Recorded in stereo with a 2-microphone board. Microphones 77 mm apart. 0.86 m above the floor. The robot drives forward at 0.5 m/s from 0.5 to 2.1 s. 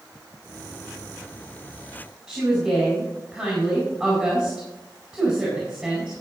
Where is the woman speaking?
5° right (ahead or behind), 4.5 m.